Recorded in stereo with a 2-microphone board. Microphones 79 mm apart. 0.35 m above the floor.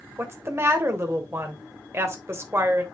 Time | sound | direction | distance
0.2 | a woman speaking | 35° right (ahead or behind) | 1.3 m